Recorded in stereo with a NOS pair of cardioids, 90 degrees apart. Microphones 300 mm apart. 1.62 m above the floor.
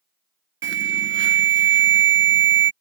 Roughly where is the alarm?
Ahead right.